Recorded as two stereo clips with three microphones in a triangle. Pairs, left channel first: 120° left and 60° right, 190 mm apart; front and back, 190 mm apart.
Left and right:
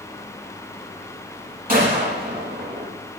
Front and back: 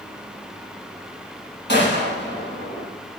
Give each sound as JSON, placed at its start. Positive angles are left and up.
{"t": 1.7, "sound": "a gunshot", "azimuth_deg": -20, "distance_m": 5.5}